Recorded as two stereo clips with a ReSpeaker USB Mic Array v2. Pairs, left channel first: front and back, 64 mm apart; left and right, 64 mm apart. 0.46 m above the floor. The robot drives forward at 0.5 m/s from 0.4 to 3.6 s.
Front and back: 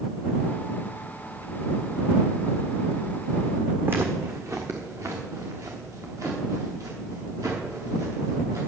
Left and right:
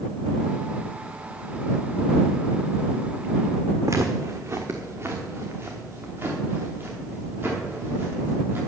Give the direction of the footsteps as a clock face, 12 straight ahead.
4 o'clock.